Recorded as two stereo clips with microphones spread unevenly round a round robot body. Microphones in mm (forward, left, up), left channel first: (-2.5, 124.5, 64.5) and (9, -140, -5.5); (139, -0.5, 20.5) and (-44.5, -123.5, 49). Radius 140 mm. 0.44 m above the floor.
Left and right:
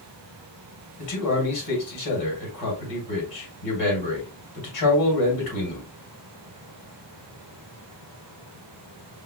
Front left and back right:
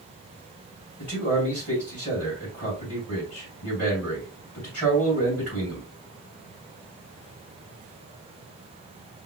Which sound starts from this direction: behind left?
A man speaking, at 1.0 s.